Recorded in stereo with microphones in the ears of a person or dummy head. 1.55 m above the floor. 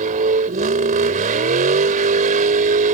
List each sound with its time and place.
0.0 s a vehicle: 40° right (ahead or behind)